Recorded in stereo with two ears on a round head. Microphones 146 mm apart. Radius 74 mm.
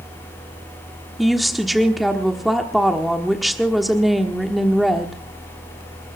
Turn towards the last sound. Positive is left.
turn(degrees=0)  # may be behind; listen again after turning